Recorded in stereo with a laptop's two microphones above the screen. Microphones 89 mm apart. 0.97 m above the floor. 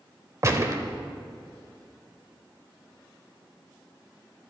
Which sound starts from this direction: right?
A gunshot, at 0.4 s.